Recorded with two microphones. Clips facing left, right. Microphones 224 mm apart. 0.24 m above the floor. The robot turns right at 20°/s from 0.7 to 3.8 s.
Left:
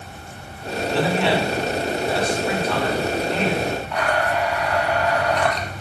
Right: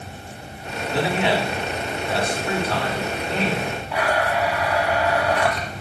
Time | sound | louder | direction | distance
0.9 | a man speaking | left 1 dB | 160° right | 2 m
3.9 | a blender | right 4 dB | 5° right (ahead or behind) | 1.0 m